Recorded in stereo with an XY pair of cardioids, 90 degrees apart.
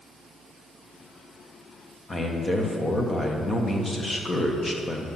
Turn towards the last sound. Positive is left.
turn(degrees=25)